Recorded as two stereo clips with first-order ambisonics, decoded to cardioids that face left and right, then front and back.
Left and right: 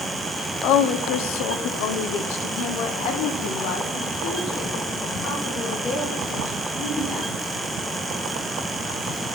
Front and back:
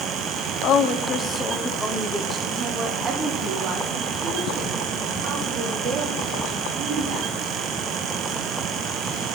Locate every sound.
0.6 s a woman speaking: 50° left, 1.1 m; by 7.3 s 145° left, 4 m